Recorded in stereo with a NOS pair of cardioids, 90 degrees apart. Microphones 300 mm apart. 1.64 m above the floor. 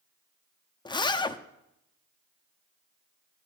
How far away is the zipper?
About 0.6 m.